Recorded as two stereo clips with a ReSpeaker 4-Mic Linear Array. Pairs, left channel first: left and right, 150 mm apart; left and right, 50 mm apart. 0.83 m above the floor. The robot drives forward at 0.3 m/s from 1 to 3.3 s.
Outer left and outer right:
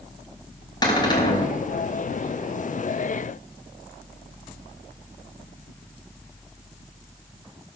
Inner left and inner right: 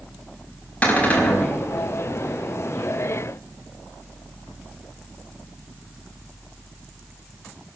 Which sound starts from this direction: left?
A cupboard door, at 0.8 s.